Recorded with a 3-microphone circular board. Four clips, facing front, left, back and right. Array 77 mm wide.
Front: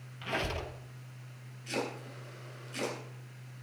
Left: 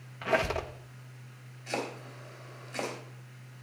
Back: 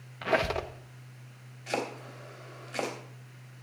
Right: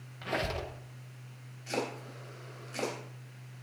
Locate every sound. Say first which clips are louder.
0.2 s a squeak: left 6 dB, back 8 dB; 150° left, 1.0 m
1.7 s chopping: even, back 3 dB; 170° left, 3.5 m